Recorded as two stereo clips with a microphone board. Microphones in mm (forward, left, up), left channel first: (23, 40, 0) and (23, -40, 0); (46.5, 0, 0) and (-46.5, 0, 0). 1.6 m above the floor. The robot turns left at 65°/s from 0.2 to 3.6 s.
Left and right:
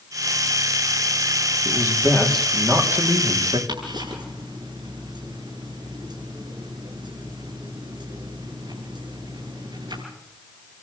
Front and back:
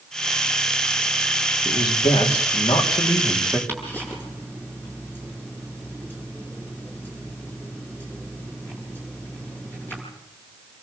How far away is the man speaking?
About 3.5 m.